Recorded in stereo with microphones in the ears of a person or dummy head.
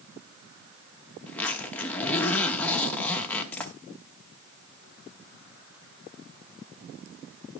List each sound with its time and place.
1.3 s a zipper: 5° left (ahead or behind), 1.1 m